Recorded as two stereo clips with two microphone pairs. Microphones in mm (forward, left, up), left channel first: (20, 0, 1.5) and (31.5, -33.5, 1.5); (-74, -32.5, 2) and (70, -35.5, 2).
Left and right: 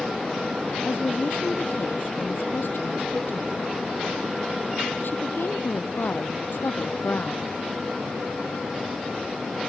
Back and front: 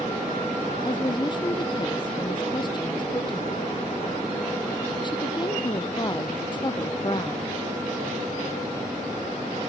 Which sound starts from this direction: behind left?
A woman speaking, at 0.8 s.